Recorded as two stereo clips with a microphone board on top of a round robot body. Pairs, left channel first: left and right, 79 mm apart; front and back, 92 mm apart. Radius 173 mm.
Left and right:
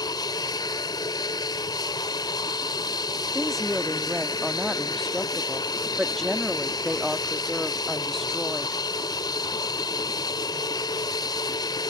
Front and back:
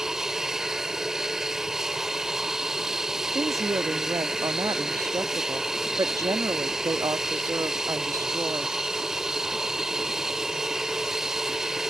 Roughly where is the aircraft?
Left.